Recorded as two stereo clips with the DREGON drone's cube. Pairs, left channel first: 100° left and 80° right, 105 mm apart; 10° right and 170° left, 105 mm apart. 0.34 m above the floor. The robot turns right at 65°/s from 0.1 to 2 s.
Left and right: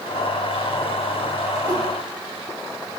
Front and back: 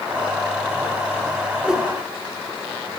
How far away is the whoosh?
About 0.7 m.